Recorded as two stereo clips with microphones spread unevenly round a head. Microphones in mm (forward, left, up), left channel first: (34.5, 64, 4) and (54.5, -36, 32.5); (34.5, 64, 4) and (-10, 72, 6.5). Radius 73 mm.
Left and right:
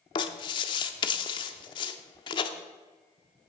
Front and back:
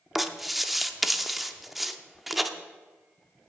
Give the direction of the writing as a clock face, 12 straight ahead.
9 o'clock.